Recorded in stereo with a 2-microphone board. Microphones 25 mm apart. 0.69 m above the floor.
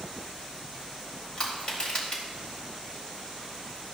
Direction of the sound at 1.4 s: 35° left (ahead or behind).